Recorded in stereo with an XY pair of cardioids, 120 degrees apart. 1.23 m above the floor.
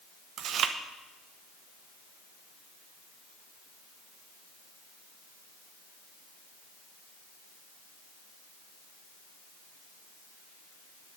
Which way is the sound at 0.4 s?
60° right.